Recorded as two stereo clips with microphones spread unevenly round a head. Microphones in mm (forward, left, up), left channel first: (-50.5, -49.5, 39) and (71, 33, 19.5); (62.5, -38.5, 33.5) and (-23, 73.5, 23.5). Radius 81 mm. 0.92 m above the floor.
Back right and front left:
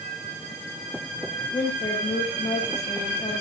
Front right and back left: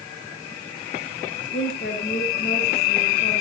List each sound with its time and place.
1.5 s a woman speaking: 80° right, 4.5 m